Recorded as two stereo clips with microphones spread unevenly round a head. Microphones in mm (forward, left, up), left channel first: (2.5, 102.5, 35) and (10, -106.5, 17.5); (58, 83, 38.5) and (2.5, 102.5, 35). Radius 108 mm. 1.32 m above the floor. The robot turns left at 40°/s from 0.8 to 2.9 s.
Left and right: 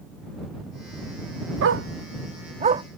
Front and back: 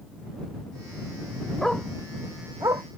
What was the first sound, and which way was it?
A dog barking, 105° right.